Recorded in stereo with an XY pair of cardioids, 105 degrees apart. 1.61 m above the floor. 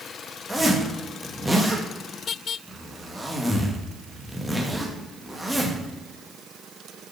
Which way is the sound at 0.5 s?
5° right.